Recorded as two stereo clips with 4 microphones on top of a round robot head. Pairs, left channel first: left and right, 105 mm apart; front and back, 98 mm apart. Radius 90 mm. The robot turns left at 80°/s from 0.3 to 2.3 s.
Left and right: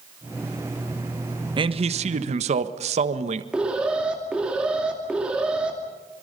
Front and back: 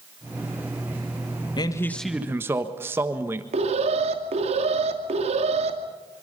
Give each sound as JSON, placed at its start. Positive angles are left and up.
{"t": 1.6, "sound": "a man speaking", "azimuth_deg": -45, "distance_m": 1.4}
{"t": 3.5, "sound": "an alarm", "azimuth_deg": -170, "distance_m": 2.5}